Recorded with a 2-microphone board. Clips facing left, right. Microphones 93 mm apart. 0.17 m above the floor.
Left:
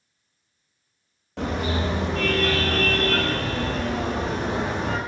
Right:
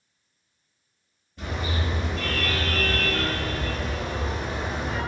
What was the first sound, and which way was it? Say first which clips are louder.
A car horn: left 5 dB; 80° left.